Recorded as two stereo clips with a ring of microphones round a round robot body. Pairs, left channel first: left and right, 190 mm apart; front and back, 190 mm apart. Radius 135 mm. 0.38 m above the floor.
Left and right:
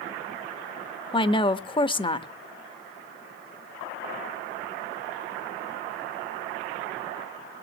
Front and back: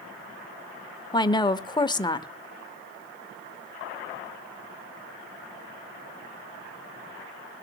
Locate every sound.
1.1 s a woman speaking: 50° left, 0.9 m